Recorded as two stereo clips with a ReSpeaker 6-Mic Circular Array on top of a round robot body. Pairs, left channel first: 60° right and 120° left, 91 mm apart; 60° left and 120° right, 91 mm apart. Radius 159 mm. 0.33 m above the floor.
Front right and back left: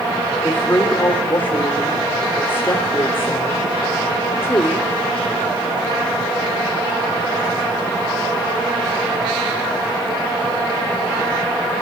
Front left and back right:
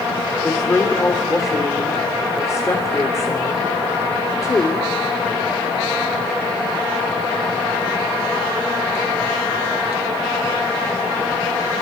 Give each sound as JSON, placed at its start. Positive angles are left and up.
{"t": 0.4, "sound": "a woman speaking", "azimuth_deg": 5, "distance_m": 2.5}